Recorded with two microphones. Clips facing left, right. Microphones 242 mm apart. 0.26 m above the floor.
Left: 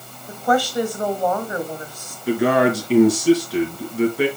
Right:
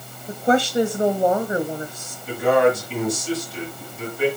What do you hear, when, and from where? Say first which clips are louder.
0.3 s a woman speaking: right 1 dB; 25° right (ahead or behind), 1.1 m
2.3 s a man speaking: even; 65° left (ahead or behind), 3.5 m